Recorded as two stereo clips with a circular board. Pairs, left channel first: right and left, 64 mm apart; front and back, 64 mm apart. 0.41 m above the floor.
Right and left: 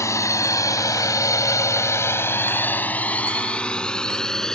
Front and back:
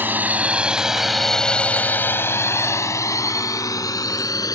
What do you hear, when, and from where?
0.0 s a drone: 125° right; by 4.5 s 10° right